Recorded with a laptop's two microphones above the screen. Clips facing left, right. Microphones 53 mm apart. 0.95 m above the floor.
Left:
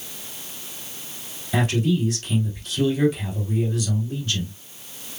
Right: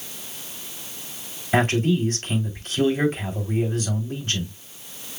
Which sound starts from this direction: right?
A man speaking, at 1.5 s.